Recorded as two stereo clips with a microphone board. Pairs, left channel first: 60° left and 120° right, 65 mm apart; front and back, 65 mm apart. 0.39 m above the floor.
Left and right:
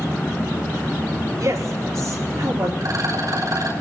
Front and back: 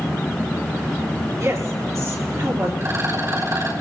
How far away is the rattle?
About 5.5 m.